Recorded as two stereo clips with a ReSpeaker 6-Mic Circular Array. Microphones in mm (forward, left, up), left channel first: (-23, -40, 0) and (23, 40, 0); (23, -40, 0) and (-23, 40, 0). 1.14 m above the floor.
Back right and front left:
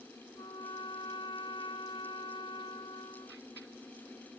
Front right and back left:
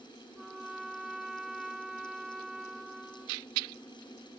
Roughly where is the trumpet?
Behind right.